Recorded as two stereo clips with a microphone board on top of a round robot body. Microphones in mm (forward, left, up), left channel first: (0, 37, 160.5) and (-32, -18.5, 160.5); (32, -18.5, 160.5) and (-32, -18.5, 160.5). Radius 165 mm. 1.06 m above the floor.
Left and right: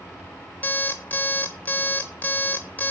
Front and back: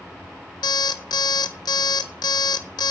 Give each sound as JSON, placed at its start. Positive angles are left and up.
{"t": 0.6, "sound": "an alarm clock", "azimuth_deg": -10, "distance_m": 0.5}